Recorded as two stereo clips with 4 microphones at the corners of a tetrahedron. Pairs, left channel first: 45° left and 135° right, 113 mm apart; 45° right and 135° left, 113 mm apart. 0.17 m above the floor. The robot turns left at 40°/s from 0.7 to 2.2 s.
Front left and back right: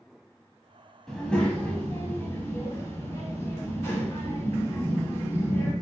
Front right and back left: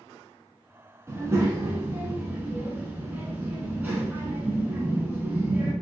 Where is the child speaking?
125° left, 0.6 m; by 5.7 s 80° left, 0.6 m.